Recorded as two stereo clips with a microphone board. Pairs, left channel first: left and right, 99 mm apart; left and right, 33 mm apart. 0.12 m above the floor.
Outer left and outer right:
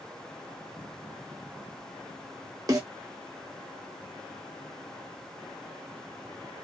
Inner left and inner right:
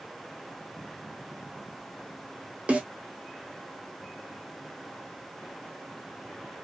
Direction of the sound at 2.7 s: 40° right (ahead or behind).